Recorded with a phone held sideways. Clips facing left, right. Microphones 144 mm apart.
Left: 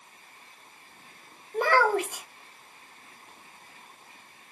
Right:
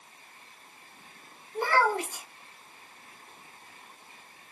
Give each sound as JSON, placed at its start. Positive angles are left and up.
{"t": 1.5, "sound": "a child speaking", "side_deg": 75, "distance_m": 1.4}